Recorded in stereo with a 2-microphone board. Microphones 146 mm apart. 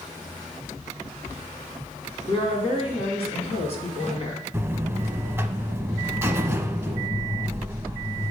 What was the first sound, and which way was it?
A woman speaking, 45° left (ahead or behind).